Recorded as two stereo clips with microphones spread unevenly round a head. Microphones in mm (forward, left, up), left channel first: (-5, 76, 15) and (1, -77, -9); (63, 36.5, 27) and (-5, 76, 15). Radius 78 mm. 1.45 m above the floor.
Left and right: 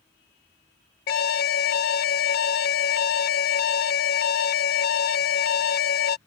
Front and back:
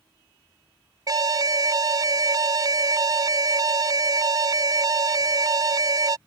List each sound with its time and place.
1.1 s an alarm: 120° left